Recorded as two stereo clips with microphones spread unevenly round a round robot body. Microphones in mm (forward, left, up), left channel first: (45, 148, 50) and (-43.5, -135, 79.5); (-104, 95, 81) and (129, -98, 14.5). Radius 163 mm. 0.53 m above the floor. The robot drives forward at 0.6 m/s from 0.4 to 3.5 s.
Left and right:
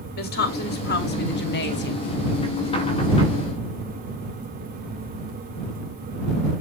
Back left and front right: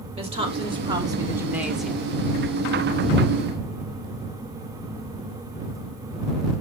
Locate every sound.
0.1 s a woman speaking: 20° left, 2 m; by 2.1 s 45° left, 1.5 m